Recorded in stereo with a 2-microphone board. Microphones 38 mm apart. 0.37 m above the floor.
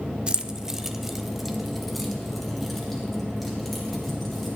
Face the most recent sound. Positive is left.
turn(degrees=5)  # may be behind; listen again after turning